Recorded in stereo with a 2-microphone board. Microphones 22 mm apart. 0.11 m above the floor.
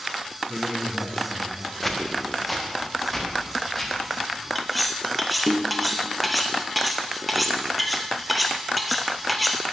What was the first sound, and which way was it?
A man speaking, 40° right (ahead or behind).